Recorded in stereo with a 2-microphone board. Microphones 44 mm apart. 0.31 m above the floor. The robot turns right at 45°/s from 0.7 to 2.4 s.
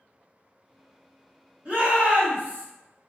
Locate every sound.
1.6 s a shout: 100° right, 1.7 m; by 2.6 s 65° right, 1.7 m